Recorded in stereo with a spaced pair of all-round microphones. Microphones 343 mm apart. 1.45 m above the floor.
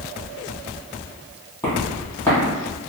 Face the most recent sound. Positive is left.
turn(degrees=5)  # may be behind; listen again after turning